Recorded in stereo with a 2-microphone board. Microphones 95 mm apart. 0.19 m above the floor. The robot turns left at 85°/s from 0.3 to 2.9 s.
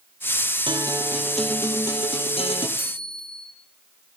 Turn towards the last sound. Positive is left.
turn(degrees=-50)  # may be behind; listen again after turning